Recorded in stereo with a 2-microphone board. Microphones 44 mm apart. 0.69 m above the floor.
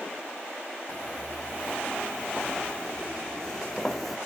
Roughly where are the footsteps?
Left.